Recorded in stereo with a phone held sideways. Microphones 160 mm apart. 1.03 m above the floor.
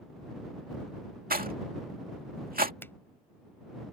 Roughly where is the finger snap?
Centre.